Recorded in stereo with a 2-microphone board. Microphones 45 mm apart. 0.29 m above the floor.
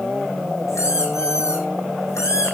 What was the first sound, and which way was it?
A squeak, 85° left.